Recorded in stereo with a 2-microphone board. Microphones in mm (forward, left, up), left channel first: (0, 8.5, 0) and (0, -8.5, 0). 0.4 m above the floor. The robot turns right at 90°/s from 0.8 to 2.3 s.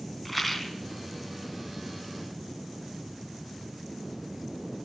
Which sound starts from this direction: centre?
A rattle, at 0.2 s.